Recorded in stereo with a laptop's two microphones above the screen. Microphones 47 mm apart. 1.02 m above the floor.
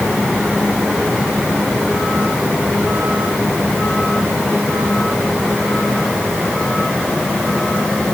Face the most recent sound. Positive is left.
No sound to turn to.